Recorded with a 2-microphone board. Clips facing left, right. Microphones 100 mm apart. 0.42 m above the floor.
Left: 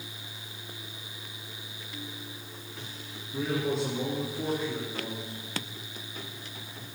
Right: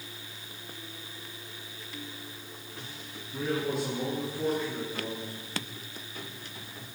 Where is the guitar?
No guitar in this recording.